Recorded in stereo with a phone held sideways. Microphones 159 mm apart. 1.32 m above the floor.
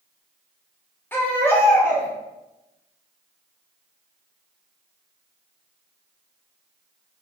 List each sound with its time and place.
1.1 s a baby crying: 10° left (ahead or behind), 0.9 m